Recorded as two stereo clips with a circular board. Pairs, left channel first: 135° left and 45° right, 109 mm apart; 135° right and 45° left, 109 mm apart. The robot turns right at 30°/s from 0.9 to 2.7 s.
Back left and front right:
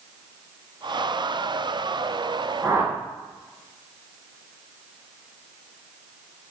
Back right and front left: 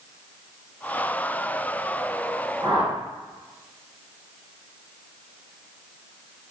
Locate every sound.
2.6 s a whoosh: 15° left, 1.0 m